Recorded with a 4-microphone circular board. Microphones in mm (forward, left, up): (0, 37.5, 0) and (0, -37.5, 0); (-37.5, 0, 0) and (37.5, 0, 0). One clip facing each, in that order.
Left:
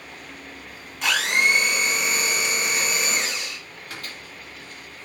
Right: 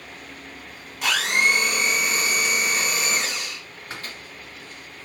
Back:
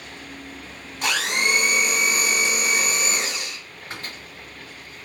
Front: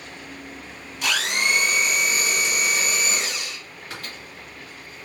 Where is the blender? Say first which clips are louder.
Even, back 1 dB; 175° right, 1.6 m.